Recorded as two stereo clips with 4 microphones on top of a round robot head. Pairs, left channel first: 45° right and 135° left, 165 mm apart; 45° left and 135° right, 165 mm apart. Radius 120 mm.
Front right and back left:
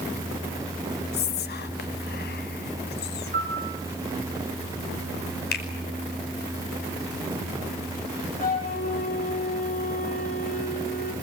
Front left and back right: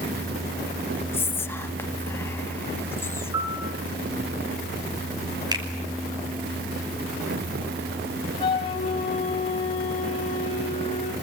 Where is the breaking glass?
No breaking glass in this recording.